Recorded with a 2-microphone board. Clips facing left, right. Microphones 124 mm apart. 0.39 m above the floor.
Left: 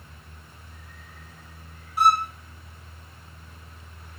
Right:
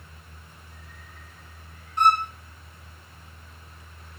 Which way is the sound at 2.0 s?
5° left (ahead or behind).